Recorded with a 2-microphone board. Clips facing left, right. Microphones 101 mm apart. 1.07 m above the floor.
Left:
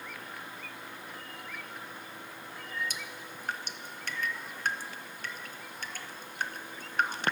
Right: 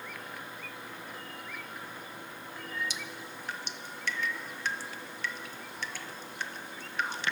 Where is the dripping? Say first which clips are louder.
Right 1 dB; 45° left (ahead or behind), 0.7 m.